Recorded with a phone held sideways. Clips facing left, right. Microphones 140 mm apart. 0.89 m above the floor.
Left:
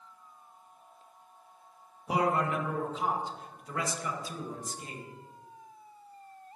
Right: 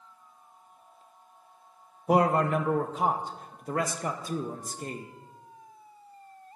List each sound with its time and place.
2.1 s a man speaking: 50° right (ahead or behind), 0.6 m